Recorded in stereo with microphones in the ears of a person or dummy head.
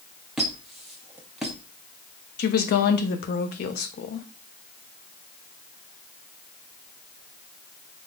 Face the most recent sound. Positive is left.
turn(degrees=45)  # may be behind; listen again after turning